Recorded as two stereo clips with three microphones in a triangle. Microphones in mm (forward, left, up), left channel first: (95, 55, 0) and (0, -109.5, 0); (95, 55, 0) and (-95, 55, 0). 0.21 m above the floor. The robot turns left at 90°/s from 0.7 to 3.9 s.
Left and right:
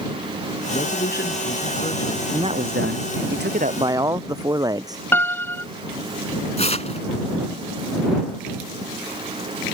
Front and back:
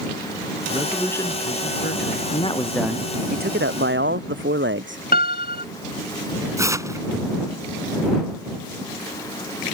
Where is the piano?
15° right.